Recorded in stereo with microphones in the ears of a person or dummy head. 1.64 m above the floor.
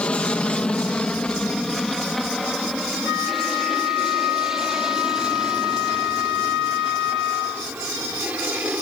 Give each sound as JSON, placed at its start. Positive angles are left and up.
{"t": 0.0, "sound": "an aircraft", "side_deg": 10}
{"t": 3.0, "sound": "a flute", "side_deg": 65}